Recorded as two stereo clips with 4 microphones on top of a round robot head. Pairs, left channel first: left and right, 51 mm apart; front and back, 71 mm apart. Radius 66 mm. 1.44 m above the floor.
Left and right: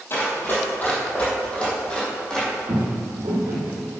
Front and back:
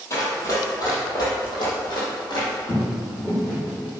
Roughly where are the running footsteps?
Ahead left.